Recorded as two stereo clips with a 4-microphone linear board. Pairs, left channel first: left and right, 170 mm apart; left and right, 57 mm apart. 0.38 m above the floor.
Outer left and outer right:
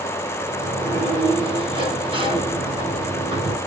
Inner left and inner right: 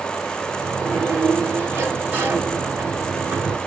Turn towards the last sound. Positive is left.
turn(degrees=-30)  # may be behind; listen again after turning